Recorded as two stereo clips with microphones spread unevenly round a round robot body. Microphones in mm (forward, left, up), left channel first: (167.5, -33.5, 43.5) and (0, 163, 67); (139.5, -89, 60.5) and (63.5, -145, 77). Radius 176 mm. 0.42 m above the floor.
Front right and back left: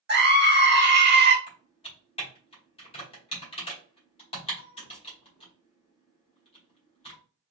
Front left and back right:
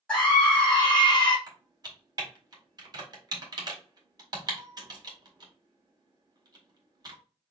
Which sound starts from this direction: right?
Typing on a keyboard, at 1.5 s.